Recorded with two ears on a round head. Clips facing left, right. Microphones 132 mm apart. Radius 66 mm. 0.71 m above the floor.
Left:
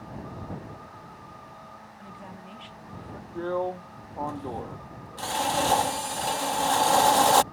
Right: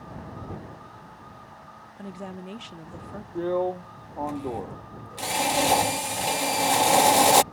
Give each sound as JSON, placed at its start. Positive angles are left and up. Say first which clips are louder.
{"t": 2.0, "sound": "a woman speaking", "louder": "right 9 dB", "side_deg": -55}
{"t": 3.4, "sound": "a drill", "louder": "right 3 dB", "side_deg": -15}